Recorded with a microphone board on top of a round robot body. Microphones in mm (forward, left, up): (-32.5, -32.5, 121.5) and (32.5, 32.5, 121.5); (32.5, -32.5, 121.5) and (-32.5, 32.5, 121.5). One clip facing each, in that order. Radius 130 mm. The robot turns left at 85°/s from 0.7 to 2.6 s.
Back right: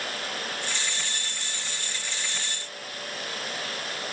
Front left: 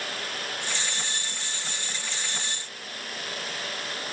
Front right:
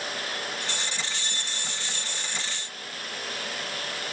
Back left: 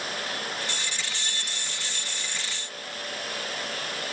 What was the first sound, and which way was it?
Only background noise.